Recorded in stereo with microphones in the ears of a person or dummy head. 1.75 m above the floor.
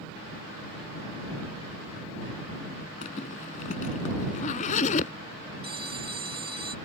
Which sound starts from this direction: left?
A zipper, at 3.0 s.